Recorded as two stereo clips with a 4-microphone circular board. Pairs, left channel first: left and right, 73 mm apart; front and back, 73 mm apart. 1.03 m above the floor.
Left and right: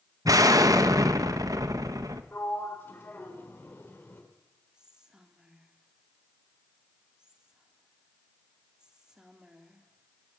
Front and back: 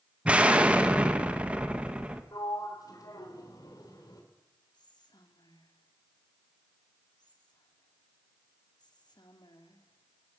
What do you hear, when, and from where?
0.2 s an explosion: 110° right, 1.4 m
2.3 s a sliding door: 30° left, 4 m
4.7 s whispering: 10° right, 3 m